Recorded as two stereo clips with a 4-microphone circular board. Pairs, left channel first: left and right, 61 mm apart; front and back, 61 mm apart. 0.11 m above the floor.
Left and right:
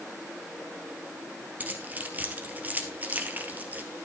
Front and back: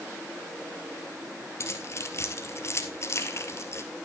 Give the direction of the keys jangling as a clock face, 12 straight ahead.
1 o'clock.